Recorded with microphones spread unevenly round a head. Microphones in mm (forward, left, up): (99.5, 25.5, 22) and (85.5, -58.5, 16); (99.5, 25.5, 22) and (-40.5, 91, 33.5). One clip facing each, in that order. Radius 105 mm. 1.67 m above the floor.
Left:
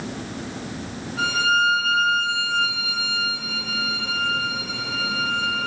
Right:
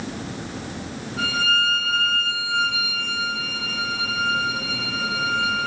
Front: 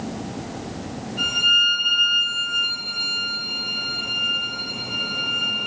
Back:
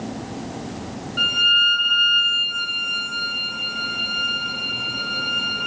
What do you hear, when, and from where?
1.2 s a violin: 170° right, 4 m